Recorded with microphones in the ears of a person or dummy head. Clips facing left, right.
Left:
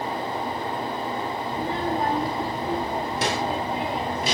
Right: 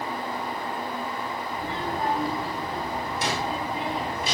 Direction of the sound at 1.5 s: 45° left (ahead or behind).